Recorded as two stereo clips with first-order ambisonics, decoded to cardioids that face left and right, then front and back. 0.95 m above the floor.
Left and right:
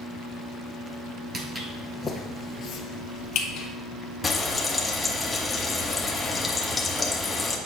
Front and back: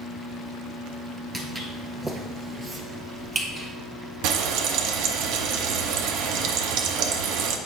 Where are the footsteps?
110° right, 0.9 m; by 3.7 s 115° left, 1.5 m.